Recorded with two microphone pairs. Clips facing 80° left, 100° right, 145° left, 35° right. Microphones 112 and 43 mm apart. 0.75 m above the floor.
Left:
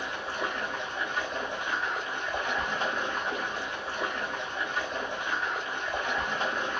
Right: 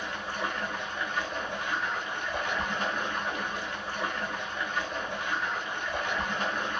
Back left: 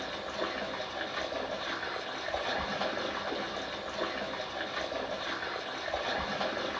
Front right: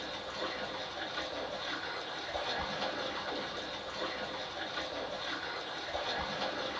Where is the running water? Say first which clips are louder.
Left 1 dB, back left 4 dB; 145° left, 1.2 m.